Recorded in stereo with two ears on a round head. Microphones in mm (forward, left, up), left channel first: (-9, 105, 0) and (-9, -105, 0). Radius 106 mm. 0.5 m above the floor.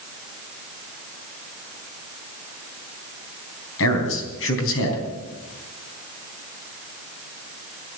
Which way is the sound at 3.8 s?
60° left (ahead or behind).